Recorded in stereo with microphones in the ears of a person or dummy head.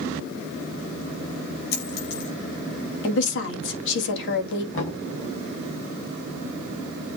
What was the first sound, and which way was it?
A dropped coin, 70° left (ahead or behind).